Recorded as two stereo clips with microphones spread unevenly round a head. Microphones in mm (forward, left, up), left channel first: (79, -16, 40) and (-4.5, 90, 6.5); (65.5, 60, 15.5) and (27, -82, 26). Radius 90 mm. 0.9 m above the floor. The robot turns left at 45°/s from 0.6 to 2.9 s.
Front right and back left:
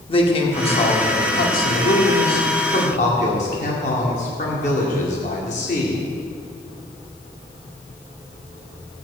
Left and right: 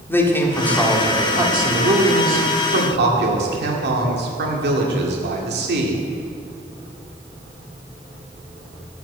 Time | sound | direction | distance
0.1 | a man speaking | straight ahead | 2.0 m